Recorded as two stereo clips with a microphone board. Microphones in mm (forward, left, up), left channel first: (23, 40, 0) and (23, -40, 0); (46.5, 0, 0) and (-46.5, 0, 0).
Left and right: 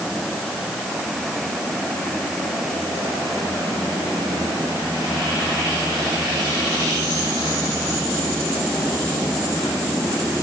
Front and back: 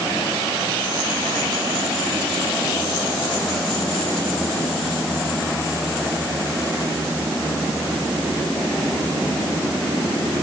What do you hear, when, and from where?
Only background noise.